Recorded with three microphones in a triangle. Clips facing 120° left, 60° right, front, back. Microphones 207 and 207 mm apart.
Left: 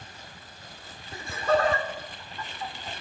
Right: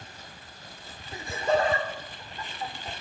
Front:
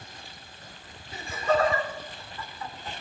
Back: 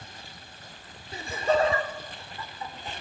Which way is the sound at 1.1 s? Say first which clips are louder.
Left 1 dB, back 1 dB; 130° right.